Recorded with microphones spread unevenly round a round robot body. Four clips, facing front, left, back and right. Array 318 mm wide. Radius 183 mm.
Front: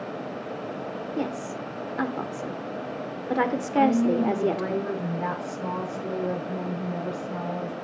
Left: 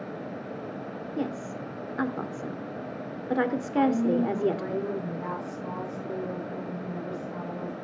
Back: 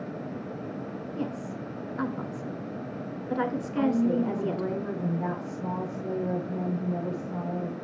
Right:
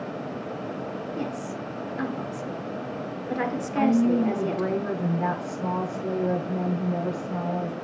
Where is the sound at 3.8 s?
45° right, 8.5 m.